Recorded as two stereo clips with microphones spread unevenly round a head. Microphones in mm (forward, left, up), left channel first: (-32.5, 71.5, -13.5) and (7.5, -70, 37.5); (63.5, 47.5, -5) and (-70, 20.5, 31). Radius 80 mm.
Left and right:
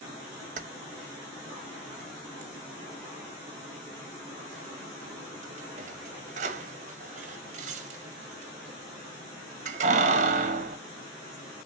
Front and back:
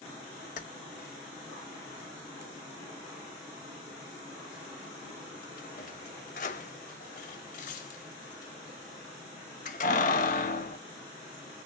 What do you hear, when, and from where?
0.6 s keys jangling: 35° right, 0.8 m